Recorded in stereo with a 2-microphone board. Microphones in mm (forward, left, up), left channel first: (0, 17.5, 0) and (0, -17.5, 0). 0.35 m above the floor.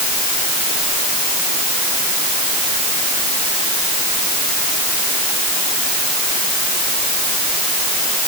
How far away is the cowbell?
I don't hear a cowbell.